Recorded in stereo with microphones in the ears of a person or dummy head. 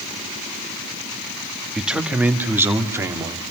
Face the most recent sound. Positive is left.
turn(degrees=-15)  # may be behind; listen again after turning